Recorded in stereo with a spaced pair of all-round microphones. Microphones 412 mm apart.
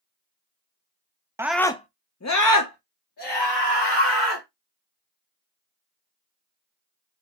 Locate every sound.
1.4 s a scream: 5° right (ahead or behind), 0.6 m; by 4.5 s 80° left, 1.6 m